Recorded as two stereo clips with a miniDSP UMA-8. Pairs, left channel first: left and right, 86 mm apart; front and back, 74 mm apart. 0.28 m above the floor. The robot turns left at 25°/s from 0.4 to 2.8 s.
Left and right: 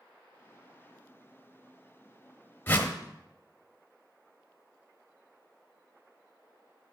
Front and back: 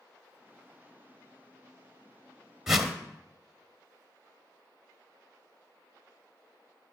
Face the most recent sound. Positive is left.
turn(degrees=105)